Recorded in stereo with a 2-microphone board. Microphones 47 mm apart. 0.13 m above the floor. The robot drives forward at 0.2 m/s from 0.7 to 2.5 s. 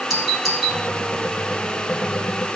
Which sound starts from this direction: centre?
A doorbell, at 0.1 s.